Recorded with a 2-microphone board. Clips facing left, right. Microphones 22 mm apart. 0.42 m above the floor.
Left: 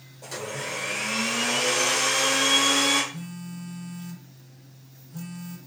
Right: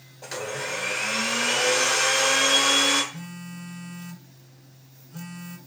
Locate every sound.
0.2 s a blender: 25° right (ahead or behind), 1.3 m
3.1 s a phone buzzing: 25° right (ahead or behind), 0.6 m